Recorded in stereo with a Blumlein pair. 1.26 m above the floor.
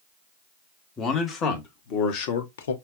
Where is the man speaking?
25° left, 1.5 m; by 2.7 s 65° left, 0.9 m.